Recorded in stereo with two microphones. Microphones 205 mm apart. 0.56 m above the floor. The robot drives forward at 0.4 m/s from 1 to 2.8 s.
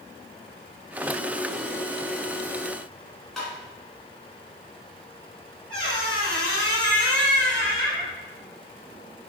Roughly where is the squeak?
Centre.